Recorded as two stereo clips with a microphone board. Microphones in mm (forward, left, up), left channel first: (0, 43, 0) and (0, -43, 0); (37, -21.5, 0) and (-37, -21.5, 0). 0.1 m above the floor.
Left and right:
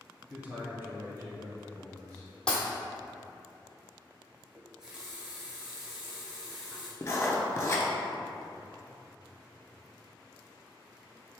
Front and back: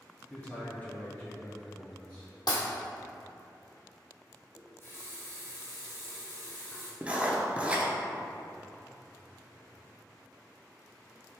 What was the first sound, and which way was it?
A man speaking, 30° right.